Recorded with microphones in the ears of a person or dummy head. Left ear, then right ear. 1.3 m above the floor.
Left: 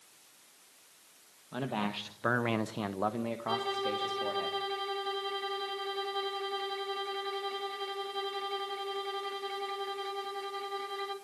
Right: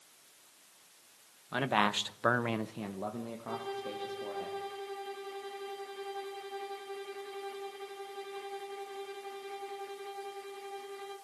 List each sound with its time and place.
1.5 s a man speaking: 60° right (ahead or behind), 1.4 m; by 4.5 s 80° left, 3 m
3.5 s a violin: 35° left (ahead or behind), 3 m